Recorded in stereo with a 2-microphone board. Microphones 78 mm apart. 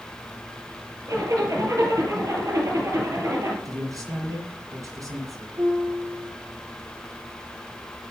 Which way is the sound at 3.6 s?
45° right (ahead or behind).